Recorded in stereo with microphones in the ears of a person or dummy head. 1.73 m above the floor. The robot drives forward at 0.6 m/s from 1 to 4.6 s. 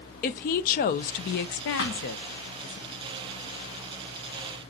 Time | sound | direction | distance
0.2 | a woman speaking | 45° left (ahead or behind) | 0.7 m
1.8 | a thud | 60° left (ahead or behind) | 2 m